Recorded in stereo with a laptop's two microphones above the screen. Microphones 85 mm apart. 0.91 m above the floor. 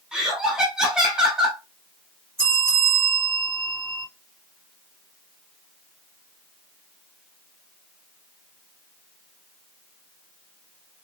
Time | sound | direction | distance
0.1 | laughter | 10° right (ahead or behind) | 0.7 m
2.4 | a bell | 40° right (ahead or behind) | 2 m